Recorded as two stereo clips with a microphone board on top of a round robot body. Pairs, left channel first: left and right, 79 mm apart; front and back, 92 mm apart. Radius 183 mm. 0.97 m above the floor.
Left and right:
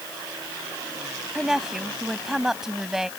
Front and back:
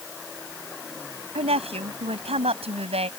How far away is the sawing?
I don't hear sawing.